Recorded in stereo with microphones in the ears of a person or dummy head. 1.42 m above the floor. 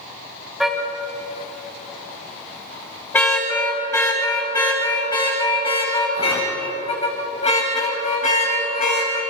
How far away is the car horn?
About 5.5 m.